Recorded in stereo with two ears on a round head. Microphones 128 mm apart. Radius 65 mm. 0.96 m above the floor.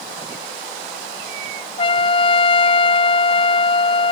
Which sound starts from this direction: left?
A trumpet, at 1.8 s.